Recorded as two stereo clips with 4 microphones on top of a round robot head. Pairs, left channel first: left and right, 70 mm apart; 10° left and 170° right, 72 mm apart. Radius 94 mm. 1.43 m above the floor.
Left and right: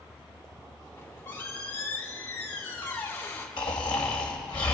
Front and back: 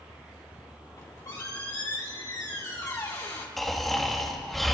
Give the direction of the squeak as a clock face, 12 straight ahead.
11 o'clock.